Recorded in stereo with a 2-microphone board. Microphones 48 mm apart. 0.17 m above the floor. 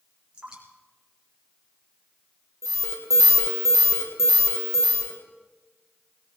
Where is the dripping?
15° right (ahead or behind), 4 m.